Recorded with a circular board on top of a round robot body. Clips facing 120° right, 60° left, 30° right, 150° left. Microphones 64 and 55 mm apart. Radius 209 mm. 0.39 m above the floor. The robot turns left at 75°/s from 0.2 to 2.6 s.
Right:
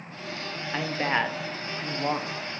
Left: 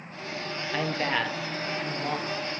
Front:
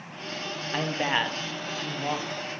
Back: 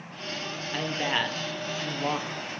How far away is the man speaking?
About 1.2 m.